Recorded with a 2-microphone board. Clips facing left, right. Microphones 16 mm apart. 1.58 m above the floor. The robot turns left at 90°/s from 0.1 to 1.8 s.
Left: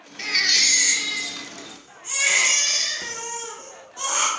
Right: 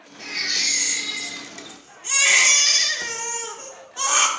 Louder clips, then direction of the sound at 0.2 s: Left 5 dB; 115° left.